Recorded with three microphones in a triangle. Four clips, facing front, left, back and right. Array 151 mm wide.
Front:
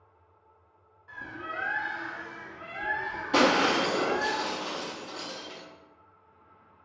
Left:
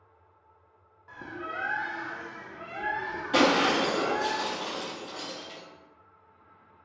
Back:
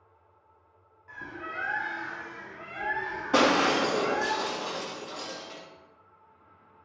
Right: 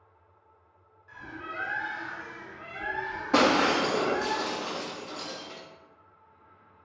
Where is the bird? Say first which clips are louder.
Left 3 dB, front 1 dB; 95° left, 0.5 m.